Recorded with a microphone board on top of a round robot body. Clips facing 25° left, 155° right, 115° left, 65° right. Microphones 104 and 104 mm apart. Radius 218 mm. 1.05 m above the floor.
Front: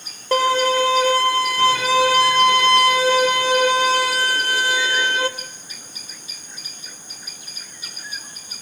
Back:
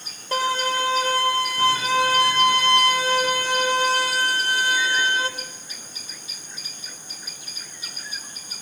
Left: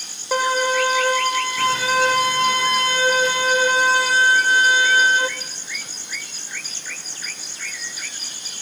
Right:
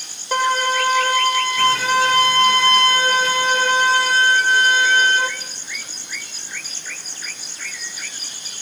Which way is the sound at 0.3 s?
25° left.